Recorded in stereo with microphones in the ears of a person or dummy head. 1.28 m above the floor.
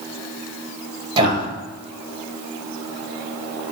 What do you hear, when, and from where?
1.2 s a man speaking: 25° right (ahead or behind), 1.3 m